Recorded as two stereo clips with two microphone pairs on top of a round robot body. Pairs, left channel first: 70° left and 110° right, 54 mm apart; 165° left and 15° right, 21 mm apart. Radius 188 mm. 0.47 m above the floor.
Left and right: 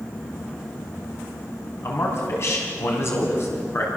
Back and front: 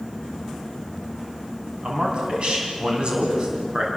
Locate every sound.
1.8 s a man speaking: 30° left, 5 m